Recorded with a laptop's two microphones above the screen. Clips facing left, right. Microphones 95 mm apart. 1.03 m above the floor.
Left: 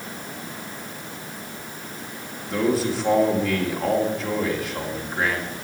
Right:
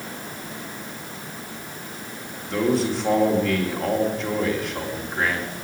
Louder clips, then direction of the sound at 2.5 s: Even; centre (ahead or behind).